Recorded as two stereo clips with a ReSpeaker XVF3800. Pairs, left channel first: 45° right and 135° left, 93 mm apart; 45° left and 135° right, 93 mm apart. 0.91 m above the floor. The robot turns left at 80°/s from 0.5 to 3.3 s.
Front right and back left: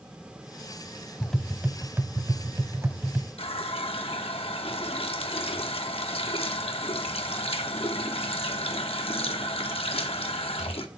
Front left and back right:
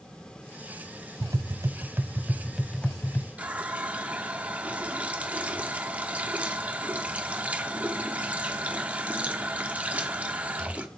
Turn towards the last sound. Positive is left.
turn(degrees=-60)